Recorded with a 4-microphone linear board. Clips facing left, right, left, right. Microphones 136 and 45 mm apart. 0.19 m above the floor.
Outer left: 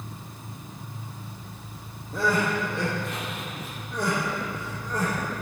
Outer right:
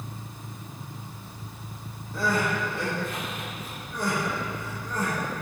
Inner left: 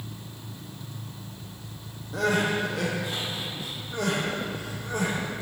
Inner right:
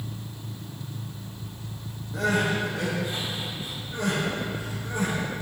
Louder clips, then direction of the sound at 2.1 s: Outer left 2 dB, even; 75° left (ahead or behind).